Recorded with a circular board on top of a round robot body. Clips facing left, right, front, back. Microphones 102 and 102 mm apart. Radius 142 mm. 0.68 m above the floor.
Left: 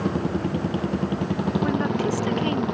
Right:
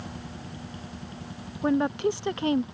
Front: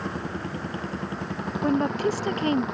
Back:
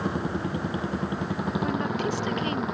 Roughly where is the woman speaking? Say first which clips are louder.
Right 3 dB, front 8 dB; ahead right.